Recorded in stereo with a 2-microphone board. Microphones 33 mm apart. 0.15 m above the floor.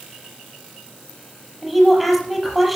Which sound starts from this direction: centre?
A woman speaking, at 1.6 s.